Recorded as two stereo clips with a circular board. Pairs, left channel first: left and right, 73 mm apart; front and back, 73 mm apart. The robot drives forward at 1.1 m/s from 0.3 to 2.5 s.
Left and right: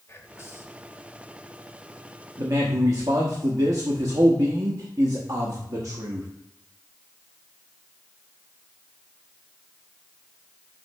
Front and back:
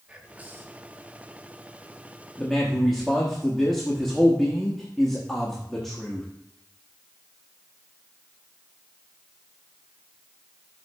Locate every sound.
0.1 s whispering: 115° left, 1.2 m; by 0.9 s 140° left, 1.5 m
2.4 s a man speaking: 75° right, 1.0 m; by 6.3 s 85° right, 0.9 m